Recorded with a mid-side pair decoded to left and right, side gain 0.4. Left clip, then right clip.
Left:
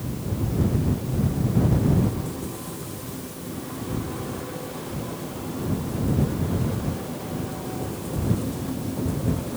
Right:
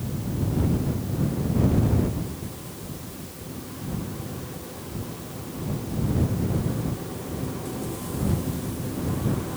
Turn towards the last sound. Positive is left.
No sound to turn to.